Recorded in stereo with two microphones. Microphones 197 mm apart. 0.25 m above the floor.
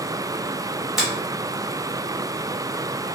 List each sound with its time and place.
1.0 s a finger snap: centre (ahead or behind), 1.4 m